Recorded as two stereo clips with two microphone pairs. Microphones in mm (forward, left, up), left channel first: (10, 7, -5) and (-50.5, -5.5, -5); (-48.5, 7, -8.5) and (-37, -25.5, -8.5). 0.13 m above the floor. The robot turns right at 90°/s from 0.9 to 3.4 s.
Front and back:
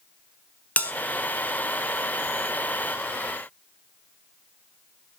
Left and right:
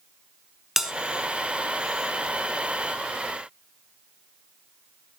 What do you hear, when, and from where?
0.8 s a bell: 5° right, 0.7 m